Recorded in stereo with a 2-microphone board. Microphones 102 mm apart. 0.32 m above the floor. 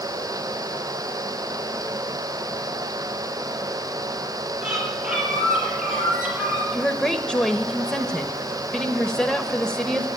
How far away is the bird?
About 6 m.